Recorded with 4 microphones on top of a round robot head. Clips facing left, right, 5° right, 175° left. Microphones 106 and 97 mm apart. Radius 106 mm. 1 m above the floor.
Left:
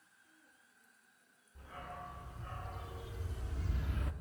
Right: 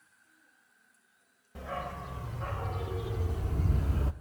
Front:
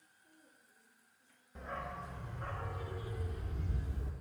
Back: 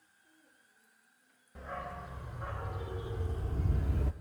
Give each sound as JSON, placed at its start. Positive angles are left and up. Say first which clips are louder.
{"t": 1.6, "sound": "a dog barking", "louder": "right 10 dB, back 1 dB", "azimuth_deg": -100, "distance_m": 2.5}